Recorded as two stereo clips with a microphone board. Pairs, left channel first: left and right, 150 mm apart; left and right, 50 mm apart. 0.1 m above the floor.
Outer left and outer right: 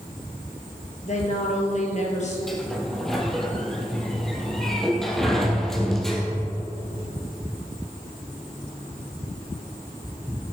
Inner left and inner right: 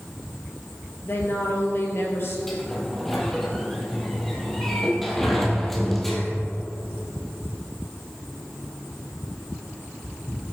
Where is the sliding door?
5° left (ahead or behind), 1.6 m.